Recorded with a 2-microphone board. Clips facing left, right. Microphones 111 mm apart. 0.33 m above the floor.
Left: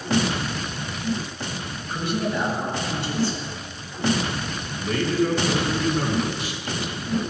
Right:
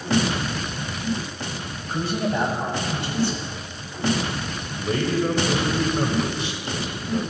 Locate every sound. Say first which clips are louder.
1.9 s a man speaking: right 1 dB; 30° right (ahead or behind), 1.5 m; by 3.5 s 60° right (ahead or behind), 2.5 m
4.8 s a man speaking: even; 25° right (ahead or behind), 1.2 m